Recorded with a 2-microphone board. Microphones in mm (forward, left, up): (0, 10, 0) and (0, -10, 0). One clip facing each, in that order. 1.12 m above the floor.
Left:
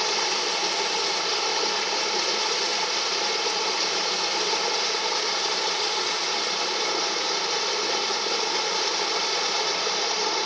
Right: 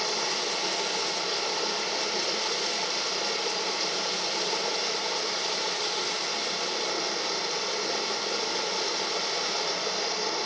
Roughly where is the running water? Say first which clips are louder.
Left 4 dB; left.